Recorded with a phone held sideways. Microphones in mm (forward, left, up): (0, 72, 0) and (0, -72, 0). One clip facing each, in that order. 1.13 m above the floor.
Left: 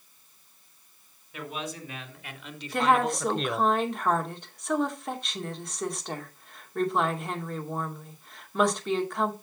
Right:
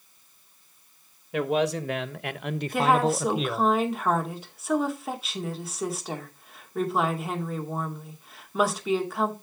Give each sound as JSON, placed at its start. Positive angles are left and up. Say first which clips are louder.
{"t": 1.3, "sound": "a man speaking", "louder": "right 12 dB", "side_deg": -85, "distance_m": 1.4}
{"t": 2.7, "sound": "a woman speaking", "louder": "right 1 dB", "side_deg": -5, "distance_m": 2.0}